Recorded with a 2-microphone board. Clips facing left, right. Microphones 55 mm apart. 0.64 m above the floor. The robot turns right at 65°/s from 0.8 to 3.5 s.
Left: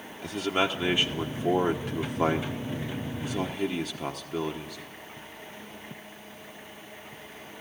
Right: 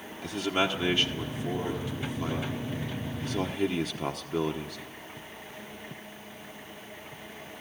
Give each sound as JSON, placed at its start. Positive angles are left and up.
{"t": 0.2, "sound": "a man speaking", "side_deg": 10, "distance_m": 1.1}